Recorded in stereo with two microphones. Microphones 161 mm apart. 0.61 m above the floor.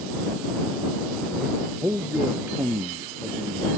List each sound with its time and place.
1.8 s a man speaking: 15° right (ahead or behind)